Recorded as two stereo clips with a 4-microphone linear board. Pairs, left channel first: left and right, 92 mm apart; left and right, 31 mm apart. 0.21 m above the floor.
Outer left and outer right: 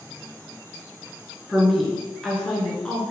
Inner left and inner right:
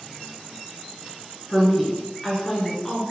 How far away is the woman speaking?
About 3 m.